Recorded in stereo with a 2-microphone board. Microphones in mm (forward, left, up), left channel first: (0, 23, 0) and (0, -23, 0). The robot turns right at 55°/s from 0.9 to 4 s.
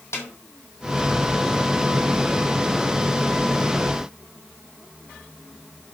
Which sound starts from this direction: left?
A snare drum, at 0.1 s.